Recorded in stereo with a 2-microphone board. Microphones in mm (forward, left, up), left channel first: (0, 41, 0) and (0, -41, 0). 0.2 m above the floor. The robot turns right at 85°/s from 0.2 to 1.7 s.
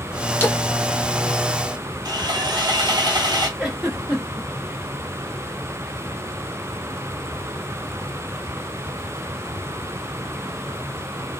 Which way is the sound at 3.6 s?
10° right (ahead or behind).